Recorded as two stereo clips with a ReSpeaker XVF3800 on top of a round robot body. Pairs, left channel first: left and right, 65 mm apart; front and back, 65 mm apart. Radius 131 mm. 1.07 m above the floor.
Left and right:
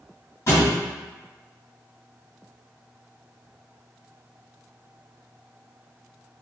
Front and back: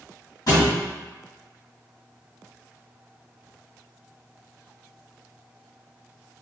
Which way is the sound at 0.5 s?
40° left.